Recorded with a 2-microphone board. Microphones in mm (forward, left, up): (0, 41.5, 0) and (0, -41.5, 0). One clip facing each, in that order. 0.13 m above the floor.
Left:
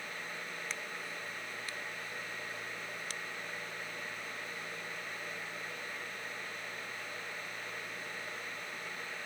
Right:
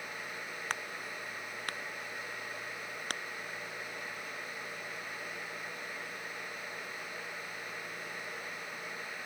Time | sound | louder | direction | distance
0.7 | a crack | right 3 dB | 60° right (ahead or behind) | ?